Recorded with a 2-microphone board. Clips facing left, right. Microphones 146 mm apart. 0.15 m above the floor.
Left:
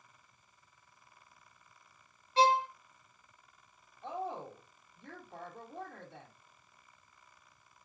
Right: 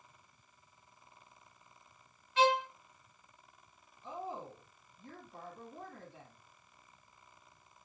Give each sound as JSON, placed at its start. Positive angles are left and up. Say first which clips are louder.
{"t": 2.4, "sound": "a violin", "louder": "left 2 dB", "side_deg": 35, "distance_m": 1.4}
{"t": 4.0, "sound": "a woman speaking", "louder": "left 3 dB", "side_deg": 70, "distance_m": 5.0}